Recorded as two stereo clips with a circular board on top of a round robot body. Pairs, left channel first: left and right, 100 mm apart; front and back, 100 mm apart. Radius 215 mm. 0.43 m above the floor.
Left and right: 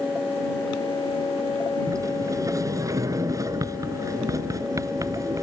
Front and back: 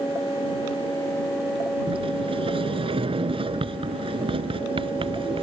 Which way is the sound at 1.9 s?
150° right.